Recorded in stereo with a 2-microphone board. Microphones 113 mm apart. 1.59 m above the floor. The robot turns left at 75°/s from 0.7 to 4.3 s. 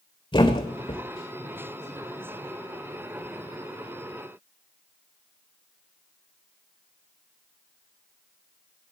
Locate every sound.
0.3 s a thud: 45° left (ahead or behind), 2 m; by 1.0 s 60° left (ahead or behind), 2 m